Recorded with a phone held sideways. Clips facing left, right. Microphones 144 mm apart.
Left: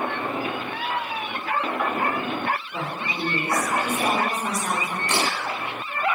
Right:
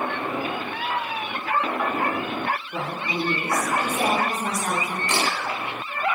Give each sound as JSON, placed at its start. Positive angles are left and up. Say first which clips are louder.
{"t": 2.7, "sound": "a woman speaking", "louder": "right 2 dB", "side_deg": -55, "distance_m": 1.8}
{"t": 5.1, "sound": "a camera shutter", "louder": "left 1 dB", "side_deg": 60, "distance_m": 1.7}